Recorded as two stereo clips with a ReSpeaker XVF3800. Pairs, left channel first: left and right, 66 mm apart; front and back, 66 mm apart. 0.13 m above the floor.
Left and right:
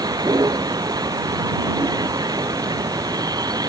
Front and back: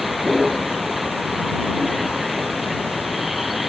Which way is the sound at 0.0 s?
95° right.